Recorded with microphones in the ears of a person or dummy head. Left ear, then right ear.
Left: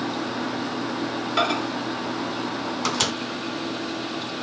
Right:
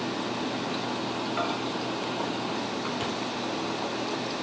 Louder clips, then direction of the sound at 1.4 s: Left 9 dB; 75° left (ahead or behind).